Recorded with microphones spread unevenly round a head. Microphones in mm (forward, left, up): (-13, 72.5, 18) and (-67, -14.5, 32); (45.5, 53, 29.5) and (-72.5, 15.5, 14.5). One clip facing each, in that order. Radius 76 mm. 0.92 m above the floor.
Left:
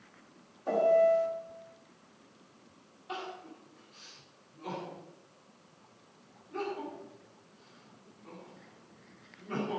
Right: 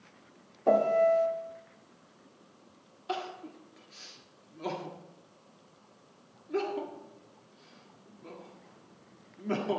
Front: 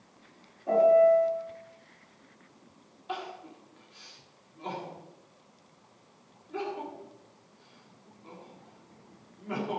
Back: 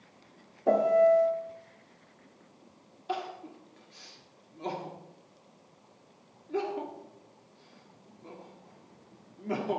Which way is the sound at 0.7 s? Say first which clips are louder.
Right 1 dB, front 2 dB; 160° right.